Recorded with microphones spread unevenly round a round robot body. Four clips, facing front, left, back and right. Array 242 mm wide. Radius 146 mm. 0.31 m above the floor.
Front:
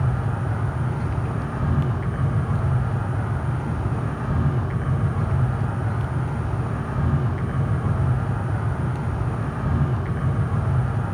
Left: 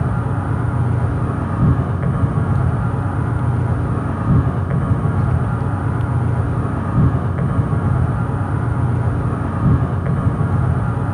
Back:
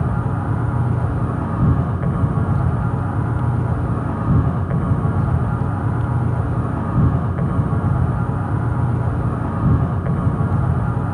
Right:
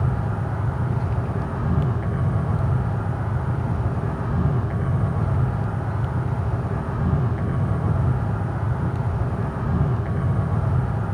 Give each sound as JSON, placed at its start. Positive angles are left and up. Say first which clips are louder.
{"t": 0.0, "sound": "an insect", "louder": "left 5 dB, back 4 dB", "azimuth_deg": 140, "distance_m": 6.5}